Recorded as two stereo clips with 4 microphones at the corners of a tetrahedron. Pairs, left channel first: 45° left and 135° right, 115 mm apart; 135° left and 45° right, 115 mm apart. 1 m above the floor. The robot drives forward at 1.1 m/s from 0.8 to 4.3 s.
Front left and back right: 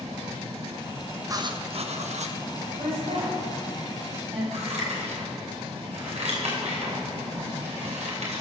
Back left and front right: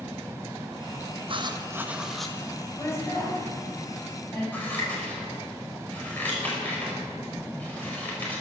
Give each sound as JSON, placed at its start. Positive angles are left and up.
{"t": 1.3, "sound": "writing", "azimuth_deg": -75, "distance_m": 0.9}
{"t": 2.8, "sound": "a woman speaking", "azimuth_deg": -155, "distance_m": 4.0}
{"t": 4.5, "sound": "scissors", "azimuth_deg": -150, "distance_m": 4.5}